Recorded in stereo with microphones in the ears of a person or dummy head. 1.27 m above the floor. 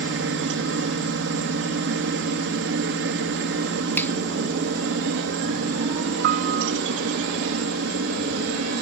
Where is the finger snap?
5° left (ahead or behind).